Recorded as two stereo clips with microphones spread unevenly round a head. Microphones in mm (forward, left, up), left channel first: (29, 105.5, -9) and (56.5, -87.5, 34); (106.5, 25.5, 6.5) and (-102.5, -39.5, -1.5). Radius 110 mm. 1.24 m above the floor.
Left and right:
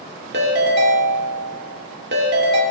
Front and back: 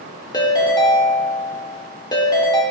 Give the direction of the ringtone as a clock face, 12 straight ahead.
2 o'clock.